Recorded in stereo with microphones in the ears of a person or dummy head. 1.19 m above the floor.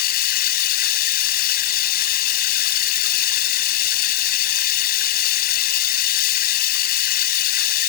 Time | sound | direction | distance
0.0 | running water | 55° left (ahead or behind) | ?